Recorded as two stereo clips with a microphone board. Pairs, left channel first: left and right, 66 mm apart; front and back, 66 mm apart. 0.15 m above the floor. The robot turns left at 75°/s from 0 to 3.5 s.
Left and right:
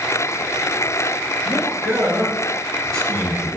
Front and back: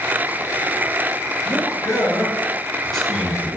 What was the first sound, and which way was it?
A man speaking, 35° left.